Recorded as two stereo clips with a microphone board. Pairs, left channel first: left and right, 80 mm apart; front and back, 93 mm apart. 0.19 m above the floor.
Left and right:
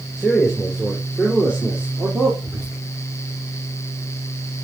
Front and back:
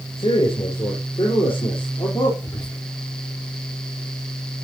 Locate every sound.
0.2 s a man speaking: 5° left, 3 m; by 2.3 s 20° right, 3.5 m
2.4 s whispering: 25° right, 6.5 m